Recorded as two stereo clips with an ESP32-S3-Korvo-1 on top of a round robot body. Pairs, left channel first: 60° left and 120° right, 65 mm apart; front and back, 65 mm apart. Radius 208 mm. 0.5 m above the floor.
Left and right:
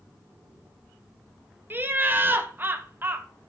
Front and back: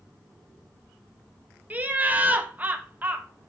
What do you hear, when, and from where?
1.7 s laughter: 140° right, 0.7 m